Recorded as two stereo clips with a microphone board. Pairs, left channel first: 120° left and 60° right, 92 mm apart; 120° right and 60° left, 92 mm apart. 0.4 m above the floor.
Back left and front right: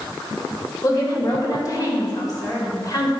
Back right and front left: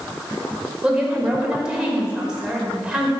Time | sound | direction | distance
0.8 | a woman speaking | 135° left | 1.8 m